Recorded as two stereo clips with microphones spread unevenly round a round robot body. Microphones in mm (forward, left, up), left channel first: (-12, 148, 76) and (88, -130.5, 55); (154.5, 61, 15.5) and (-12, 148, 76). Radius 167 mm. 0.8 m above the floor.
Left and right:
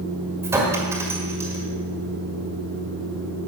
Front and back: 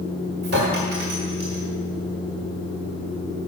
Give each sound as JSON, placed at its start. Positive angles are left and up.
{"t": 0.4, "sound": "a clink", "azimuth_deg": -150, "distance_m": 1.4}